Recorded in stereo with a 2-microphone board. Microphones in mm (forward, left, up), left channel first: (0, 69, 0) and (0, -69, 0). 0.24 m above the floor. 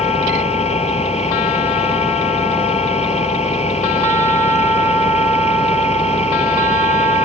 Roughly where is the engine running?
Left.